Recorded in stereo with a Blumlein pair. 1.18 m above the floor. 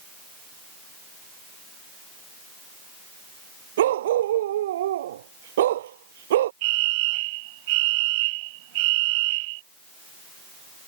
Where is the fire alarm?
45° right.